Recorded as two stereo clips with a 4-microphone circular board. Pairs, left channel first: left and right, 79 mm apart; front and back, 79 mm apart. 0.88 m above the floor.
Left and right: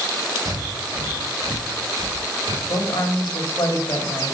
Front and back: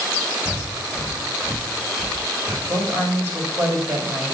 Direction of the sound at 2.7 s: 125° left.